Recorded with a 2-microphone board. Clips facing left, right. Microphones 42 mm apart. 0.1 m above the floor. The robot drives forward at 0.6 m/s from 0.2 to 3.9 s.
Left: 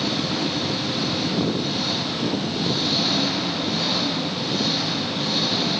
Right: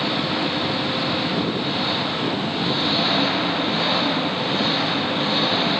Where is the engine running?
25° right (ahead or behind); by 5.8 s 30° right (ahead or behind).